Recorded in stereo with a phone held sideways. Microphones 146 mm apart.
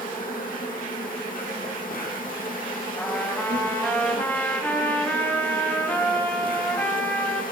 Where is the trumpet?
15° left (ahead or behind), 3.5 m.